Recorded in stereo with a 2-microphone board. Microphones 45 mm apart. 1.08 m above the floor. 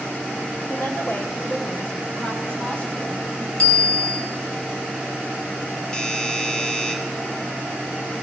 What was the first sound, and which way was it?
A woman speaking, 50° left (ahead or behind).